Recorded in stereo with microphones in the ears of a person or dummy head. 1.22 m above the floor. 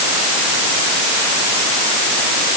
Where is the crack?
I don't hear a crack.